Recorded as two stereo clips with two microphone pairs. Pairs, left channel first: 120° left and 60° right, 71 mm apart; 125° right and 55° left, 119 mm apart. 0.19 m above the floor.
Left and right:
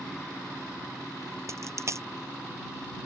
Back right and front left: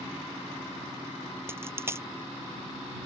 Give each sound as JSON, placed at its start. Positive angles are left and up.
{"t": 1.5, "sound": "a dropped coin", "azimuth_deg": -15}